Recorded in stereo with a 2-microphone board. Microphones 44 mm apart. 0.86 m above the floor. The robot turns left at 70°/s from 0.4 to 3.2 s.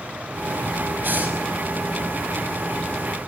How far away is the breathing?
About 5.5 m.